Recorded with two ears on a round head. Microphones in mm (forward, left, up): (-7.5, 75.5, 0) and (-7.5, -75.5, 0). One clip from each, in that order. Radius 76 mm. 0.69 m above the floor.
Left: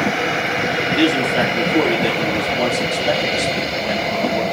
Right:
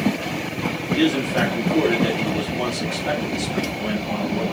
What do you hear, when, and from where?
0.9 s a man speaking: 15° left (ahead or behind), 4 m